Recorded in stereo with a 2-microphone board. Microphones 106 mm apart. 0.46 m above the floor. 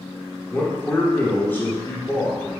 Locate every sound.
0.5 s a man speaking: 20° left (ahead or behind), 0.7 m